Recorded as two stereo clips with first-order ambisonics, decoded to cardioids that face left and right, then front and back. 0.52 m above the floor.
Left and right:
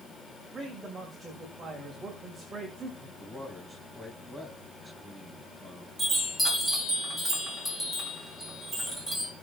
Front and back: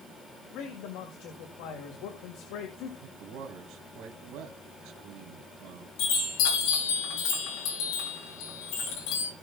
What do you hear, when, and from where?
0.5 s a man speaking: 15° right, 2.5 m
3.0 s a man speaking: 175° right, 2.5 m
6.0 s a chime: straight ahead, 5.5 m